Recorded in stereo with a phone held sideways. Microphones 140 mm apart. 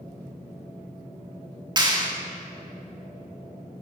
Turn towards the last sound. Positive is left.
turn(degrees=-30)  # may be behind; listen again after turning